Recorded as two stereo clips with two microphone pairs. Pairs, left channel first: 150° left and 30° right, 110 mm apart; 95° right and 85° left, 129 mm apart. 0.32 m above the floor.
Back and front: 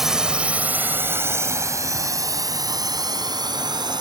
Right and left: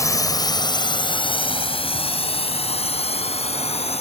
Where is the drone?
115° right; by 4.0 s 70° right.